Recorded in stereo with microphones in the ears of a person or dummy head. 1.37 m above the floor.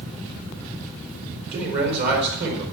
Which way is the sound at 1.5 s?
55° right (ahead or behind).